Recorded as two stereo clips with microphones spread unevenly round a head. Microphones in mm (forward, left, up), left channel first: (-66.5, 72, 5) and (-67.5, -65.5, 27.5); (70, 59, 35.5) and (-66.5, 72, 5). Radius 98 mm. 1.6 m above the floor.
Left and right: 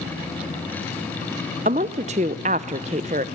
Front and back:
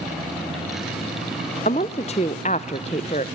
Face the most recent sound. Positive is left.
turn(degrees=-50)